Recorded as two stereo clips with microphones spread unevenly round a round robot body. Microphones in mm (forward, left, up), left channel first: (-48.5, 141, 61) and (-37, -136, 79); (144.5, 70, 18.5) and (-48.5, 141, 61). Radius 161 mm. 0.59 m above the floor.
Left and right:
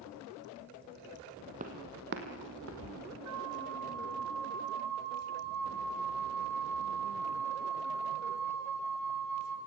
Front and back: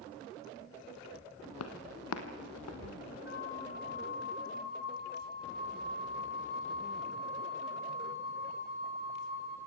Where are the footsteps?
25° right, 1.7 m; by 3.1 s 45° right, 2.5 m.